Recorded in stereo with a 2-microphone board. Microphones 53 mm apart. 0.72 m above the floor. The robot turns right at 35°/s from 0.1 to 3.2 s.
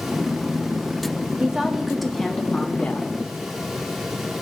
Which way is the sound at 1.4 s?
20° right.